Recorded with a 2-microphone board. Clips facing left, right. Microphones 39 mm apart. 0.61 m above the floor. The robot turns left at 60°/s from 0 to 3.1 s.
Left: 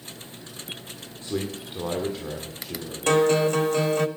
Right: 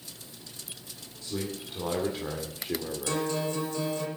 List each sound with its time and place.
1.2 s a man speaking: 55° left, 1.8 m; by 3.3 s 60° right, 1.8 m
3.1 s a guitar: 60° left (ahead or behind), 1.1 m